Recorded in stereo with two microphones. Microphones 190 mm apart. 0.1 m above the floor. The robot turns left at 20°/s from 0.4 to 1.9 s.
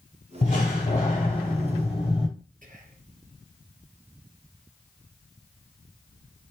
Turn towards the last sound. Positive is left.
turn(degrees=-45)  # may be behind; listen again after turning